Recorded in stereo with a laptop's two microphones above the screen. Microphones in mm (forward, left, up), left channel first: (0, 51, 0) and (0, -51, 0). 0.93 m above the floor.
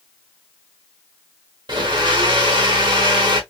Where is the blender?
50° right (ahead or behind), 1.2 m.